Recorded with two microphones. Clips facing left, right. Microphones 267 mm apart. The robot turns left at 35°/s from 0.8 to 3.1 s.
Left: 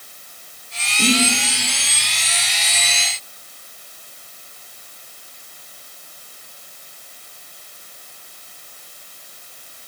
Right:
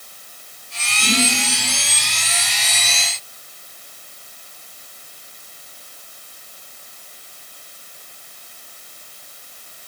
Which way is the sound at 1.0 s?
60° left (ahead or behind).